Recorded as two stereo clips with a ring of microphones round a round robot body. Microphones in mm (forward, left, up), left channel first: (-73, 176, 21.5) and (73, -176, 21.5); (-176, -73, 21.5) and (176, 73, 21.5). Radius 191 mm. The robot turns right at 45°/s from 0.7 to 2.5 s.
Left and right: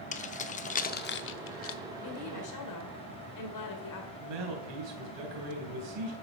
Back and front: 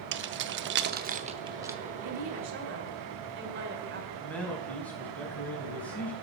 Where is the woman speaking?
60° left, 1.9 m; by 4.1 s 80° left, 1.9 m.